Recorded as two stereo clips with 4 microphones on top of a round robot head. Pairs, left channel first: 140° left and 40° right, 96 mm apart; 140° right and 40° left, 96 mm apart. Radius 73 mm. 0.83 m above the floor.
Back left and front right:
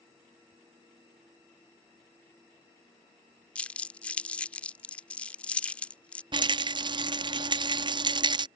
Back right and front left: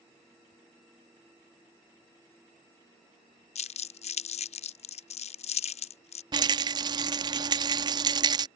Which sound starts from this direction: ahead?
A rattle, at 6.3 s.